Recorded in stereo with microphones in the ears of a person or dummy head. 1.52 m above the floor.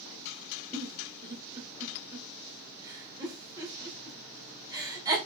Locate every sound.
0.7 s a giggle: 20° right (ahead or behind), 2.0 m